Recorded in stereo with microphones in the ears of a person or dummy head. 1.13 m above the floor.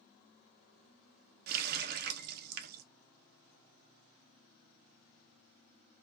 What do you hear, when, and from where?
1.5 s a running tap: 55° right (ahead or behind), 0.6 m